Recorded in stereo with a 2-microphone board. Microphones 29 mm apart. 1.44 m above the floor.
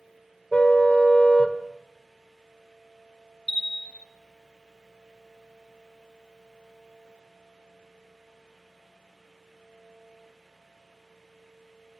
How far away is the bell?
About 1.5 m.